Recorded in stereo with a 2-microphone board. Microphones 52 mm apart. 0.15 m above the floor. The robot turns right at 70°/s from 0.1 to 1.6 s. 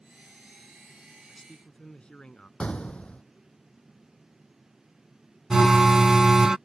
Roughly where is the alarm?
Centre.